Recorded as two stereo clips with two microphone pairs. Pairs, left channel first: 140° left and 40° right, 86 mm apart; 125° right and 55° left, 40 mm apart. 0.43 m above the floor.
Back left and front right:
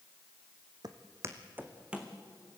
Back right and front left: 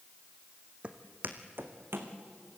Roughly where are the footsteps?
Ahead.